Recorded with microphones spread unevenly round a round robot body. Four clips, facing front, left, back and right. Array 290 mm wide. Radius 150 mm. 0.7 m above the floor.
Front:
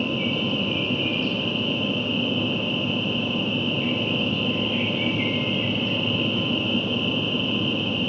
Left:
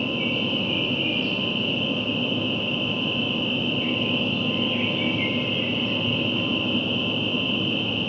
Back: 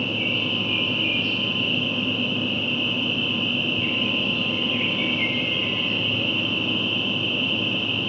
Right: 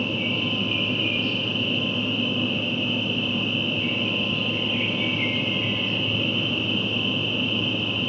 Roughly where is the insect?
Ahead.